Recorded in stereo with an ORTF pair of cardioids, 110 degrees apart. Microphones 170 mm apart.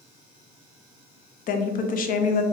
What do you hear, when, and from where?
1.5 s a woman speaking: 55° left, 0.7 m